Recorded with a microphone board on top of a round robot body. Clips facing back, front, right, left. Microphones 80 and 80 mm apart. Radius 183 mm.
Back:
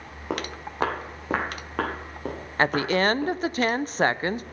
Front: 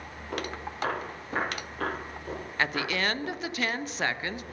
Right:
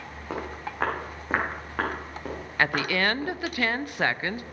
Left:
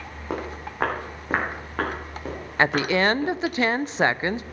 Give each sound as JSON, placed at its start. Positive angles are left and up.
{"t": 0.3, "sound": "footsteps", "azimuth_deg": 165, "distance_m": 3.0}
{"t": 2.6, "sound": "a woman speaking", "azimuth_deg": 150, "distance_m": 0.7}